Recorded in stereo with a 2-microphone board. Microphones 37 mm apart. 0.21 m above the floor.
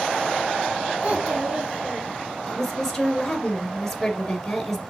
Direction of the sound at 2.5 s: 5° left (ahead or behind).